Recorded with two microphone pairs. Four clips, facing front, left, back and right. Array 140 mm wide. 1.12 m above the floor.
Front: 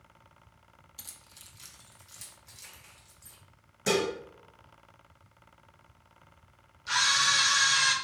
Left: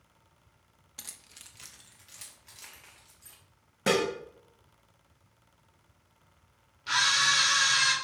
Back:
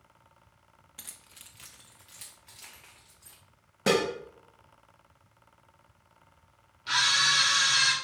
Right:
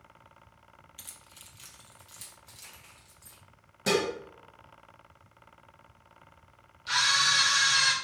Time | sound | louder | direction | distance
1.0 | keys jangling | right 1 dB, back 1 dB | 115° left | 0.5 m
3.9 | dishes clattering | left 1 dB, back 2 dB | 165° left | 1.0 m
6.9 | a camera shutter | even, even | 155° left | 2 m